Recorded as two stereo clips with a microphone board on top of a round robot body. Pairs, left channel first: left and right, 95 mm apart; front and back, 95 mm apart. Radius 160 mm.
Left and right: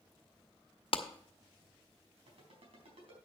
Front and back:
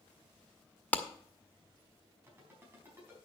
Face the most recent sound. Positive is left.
turn(degrees=-115)